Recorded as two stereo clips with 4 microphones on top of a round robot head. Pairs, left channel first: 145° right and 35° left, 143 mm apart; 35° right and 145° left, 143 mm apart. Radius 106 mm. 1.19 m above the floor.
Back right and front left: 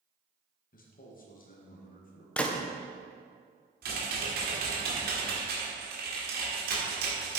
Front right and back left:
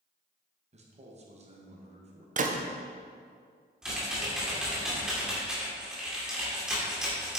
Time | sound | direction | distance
0.7 | a man speaking | 170° right | 1.9 m
2.4 | a gunshot | 135° left | 1.0 m
3.8 | typing on a keyboard | 60° left | 2 m